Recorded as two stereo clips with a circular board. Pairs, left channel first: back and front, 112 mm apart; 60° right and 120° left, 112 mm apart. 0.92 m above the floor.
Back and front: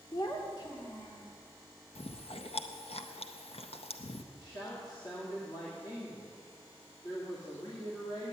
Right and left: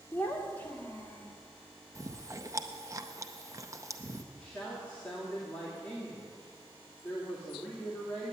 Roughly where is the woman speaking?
Behind right.